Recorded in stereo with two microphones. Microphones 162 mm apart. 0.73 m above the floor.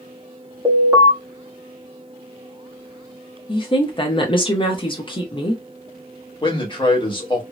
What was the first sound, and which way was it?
An alarm, 20° right (ahead or behind).